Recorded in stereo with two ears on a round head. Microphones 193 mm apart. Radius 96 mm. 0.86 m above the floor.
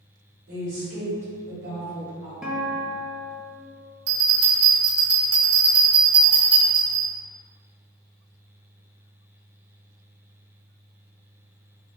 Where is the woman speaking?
55° right (ahead or behind), 1.9 m.